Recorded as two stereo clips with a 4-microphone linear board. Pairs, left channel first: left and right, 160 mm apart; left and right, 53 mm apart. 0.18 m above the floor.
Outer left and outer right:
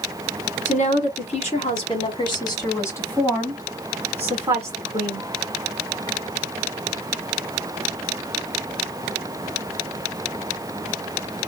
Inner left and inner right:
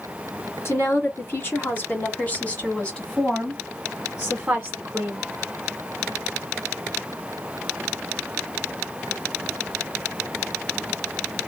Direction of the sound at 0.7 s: 45° left (ahead or behind).